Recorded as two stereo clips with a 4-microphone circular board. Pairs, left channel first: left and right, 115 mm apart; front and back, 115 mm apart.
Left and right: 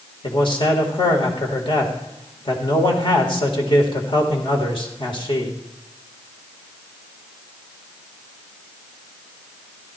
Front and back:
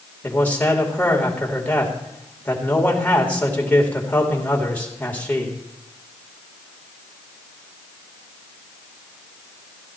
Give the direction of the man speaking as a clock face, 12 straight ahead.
10 o'clock.